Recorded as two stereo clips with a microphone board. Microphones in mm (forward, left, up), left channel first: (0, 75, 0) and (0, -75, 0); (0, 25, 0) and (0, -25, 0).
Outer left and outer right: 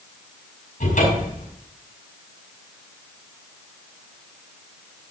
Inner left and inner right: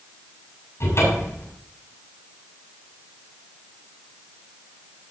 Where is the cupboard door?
60° left (ahead or behind), 7 m.